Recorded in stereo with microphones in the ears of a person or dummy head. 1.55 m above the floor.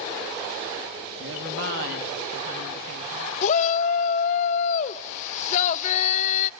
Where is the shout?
40° left (ahead or behind), 0.9 m.